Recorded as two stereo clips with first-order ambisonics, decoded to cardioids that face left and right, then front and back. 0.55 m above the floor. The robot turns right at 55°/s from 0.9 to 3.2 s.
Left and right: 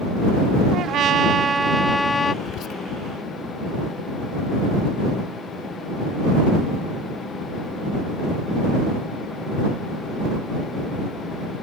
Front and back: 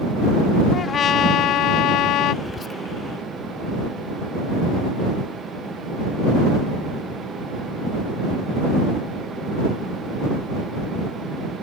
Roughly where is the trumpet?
Ahead right.